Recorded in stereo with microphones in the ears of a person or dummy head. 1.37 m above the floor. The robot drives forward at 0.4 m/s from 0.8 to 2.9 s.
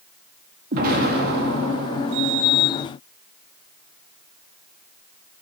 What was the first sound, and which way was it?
An explosion, 40° right (ahead or behind).